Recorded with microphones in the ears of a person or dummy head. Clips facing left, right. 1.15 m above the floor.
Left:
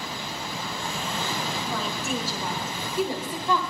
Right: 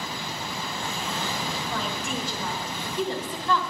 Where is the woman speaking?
10° left (ahead or behind), 6 m; by 3.6 s 20° left (ahead or behind), 3 m.